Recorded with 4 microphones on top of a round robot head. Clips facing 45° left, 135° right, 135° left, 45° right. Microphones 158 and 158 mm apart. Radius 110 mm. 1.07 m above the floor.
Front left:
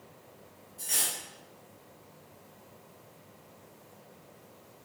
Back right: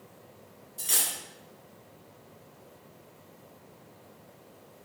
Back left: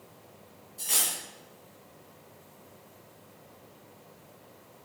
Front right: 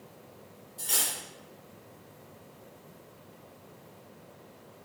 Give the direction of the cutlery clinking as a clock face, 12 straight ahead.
5 o'clock.